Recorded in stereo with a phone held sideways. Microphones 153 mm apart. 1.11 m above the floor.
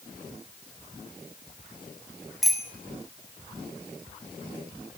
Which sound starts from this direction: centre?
A bicycle bell, at 2.4 s.